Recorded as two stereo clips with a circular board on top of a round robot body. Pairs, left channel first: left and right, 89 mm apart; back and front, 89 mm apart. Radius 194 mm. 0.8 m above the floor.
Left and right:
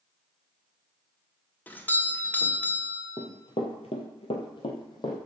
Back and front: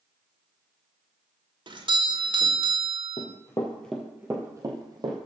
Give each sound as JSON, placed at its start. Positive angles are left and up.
{"t": 1.7, "sound": "a doorbell", "azimuth_deg": 20, "distance_m": 1.7}
{"t": 3.2, "sound": "running footsteps", "azimuth_deg": 150, "distance_m": 1.3}